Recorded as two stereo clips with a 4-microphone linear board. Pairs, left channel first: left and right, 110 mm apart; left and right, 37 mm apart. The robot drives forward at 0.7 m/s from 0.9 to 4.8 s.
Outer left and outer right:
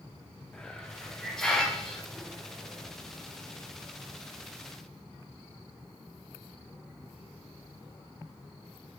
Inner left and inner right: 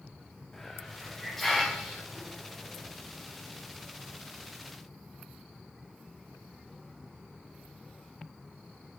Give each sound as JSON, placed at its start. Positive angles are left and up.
{"t": 0.5, "sound": "a hiss", "side_deg": 5, "distance_m": 0.8}